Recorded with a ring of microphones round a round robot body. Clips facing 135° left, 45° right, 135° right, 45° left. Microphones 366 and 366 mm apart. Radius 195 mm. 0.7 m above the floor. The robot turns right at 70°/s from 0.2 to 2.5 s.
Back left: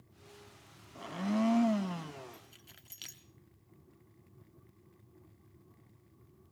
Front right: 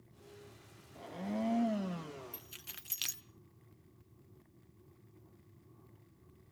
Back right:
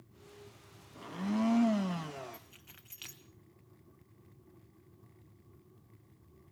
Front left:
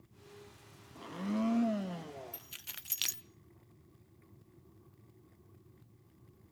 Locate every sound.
0.9 s a blender: 125° left, 0.6 m; by 2.4 s 135° right, 0.6 m
2.3 s keys jangling: 5° left, 0.7 m; by 3.2 s 20° left, 0.7 m